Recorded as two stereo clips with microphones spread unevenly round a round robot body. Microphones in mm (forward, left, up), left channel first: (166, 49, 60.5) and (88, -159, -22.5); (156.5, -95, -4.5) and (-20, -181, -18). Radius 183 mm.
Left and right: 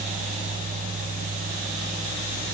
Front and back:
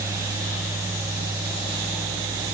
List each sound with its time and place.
Only background noise.